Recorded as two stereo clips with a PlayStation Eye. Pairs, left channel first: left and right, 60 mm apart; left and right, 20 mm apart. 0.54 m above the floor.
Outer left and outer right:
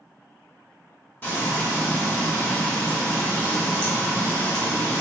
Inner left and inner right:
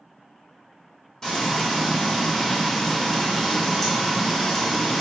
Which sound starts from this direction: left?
Frying, at 1.2 s.